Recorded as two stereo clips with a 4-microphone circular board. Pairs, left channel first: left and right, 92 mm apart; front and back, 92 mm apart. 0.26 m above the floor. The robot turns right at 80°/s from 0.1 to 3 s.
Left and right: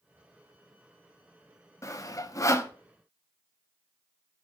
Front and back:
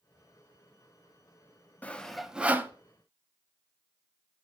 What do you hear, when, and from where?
1.8 s sawing: 60° left, 0.5 m; by 2.7 s 135° left, 0.5 m